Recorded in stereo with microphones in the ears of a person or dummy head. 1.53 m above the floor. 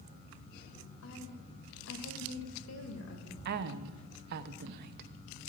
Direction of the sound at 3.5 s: 60° right (ahead or behind).